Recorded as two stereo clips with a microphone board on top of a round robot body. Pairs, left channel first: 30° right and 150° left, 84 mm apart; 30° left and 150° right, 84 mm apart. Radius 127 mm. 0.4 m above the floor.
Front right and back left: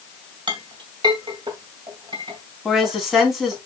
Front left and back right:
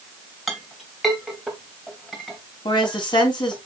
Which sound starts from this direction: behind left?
A clink, at 0.5 s.